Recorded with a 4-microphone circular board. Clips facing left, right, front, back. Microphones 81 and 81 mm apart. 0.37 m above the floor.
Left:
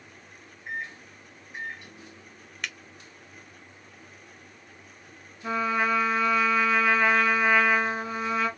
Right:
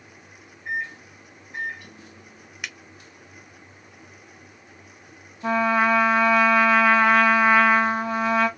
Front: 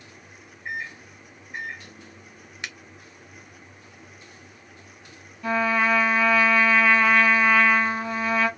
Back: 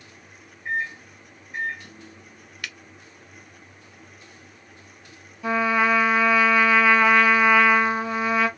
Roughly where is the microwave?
Right.